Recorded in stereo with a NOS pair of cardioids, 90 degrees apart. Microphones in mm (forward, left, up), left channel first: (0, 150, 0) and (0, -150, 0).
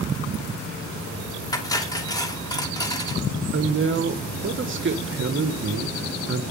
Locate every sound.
1.5 s cutlery clinking: 10° left, 3 m
3.5 s a woman speaking: 40° right, 1.8 m